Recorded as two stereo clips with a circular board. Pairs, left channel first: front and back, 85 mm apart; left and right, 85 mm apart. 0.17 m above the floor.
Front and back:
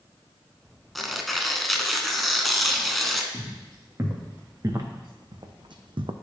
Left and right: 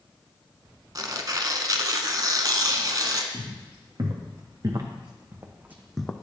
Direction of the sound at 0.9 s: 90° right.